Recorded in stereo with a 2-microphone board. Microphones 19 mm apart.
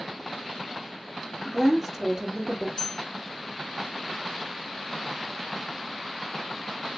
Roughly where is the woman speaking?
Centre.